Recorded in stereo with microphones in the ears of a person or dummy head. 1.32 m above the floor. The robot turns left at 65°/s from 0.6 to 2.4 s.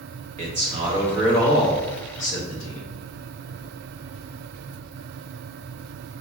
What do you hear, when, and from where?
0.4 s a man speaking: 140° right, 1.0 m; by 2.9 s 100° left, 1.0 m